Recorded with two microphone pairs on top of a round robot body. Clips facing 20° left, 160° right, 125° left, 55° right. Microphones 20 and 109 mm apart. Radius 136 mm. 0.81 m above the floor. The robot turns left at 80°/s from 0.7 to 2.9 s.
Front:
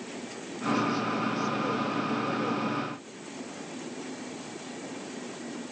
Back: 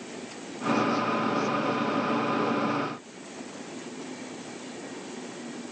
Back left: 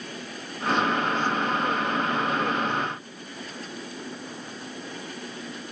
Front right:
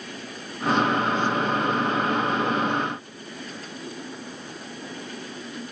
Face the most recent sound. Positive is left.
No sound to turn to.